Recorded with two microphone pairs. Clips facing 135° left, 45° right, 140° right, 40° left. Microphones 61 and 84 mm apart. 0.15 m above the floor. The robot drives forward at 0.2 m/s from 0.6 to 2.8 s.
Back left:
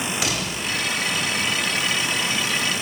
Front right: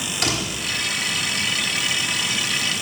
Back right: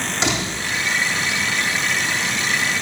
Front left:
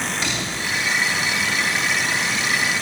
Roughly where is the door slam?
Behind right.